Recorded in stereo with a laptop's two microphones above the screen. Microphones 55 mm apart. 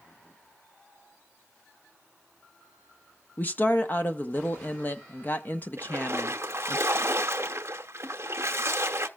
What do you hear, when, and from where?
3.4 s a woman speaking: 35° left (ahead or behind), 0.9 m
5.8 s a splash: 50° right (ahead or behind), 0.8 m